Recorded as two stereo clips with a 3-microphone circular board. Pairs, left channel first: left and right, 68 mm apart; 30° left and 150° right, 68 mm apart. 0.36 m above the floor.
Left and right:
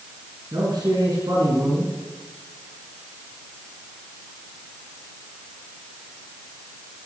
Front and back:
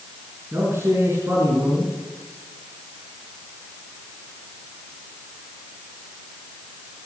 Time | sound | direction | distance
0.5 | a man speaking | 100° right | 4 m